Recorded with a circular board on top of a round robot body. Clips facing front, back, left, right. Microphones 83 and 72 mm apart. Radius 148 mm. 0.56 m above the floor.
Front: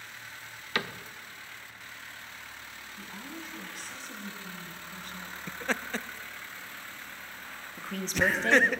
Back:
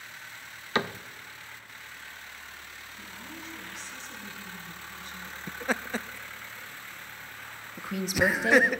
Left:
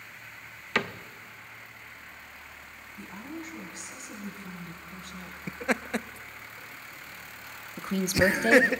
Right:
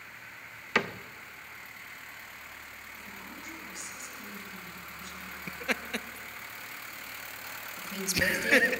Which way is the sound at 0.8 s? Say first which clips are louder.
Back 4 dB, even; 170° right.